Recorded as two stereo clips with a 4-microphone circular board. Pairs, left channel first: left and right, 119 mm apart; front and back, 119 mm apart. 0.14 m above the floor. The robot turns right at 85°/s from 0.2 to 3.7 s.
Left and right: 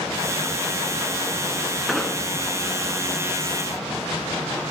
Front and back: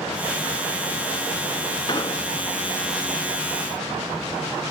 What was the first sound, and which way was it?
An explosion, 5° right.